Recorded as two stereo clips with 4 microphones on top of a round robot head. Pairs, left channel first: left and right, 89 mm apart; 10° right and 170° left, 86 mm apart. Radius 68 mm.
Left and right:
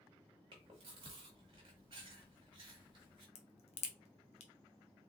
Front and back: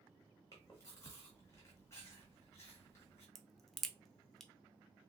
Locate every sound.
0.5 s chewing: 70° right, 1.1 m
3.4 s a crack: 80° left, 0.6 m